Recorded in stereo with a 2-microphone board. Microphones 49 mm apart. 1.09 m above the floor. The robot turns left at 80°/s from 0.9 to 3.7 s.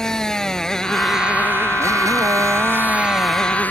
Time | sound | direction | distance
0.0 | a motorcycle | 10° left | ?